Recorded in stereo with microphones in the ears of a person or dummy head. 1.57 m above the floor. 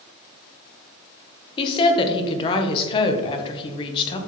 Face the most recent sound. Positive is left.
turn(degrees=25)  # may be behind; listen again after turning